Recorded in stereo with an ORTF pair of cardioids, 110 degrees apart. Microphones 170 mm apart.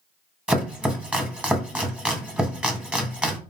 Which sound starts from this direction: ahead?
Chopping, at 0.5 s.